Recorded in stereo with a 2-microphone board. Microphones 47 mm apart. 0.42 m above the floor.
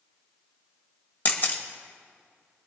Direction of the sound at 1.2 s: 45° left (ahead or behind).